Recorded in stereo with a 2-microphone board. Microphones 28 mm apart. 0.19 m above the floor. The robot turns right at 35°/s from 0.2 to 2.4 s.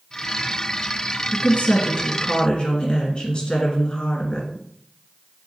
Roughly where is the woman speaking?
Left.